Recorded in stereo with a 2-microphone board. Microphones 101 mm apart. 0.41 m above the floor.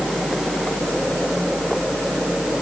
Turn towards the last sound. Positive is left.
No sound to turn to.